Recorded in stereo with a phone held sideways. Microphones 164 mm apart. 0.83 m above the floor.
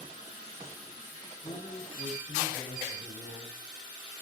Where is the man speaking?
45° left (ahead or behind), 6.5 m.